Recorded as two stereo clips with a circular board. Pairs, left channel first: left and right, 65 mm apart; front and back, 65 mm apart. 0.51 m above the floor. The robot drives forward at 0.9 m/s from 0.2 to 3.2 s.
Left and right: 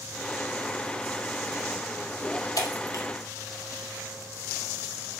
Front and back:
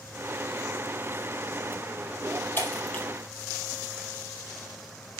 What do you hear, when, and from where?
2.6 s breaking glass: 65° left, 3.5 m; by 3.0 s 70° left, 3.5 m